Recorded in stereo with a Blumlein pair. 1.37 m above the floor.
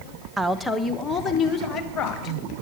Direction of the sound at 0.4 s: 5° right.